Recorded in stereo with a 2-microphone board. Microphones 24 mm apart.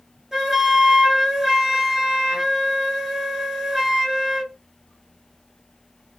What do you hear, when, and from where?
0.3 s a flute: 15° right (ahead or behind), 1.5 m